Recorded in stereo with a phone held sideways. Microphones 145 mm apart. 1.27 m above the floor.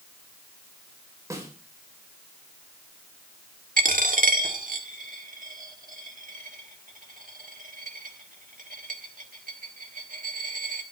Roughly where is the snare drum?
Right.